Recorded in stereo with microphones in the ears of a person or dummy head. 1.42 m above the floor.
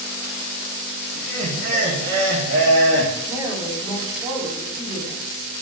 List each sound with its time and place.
1.1 s laughter: 60° right (ahead or behind), 2.5 m
3.3 s a woman speaking: 15° right (ahead or behind), 4 m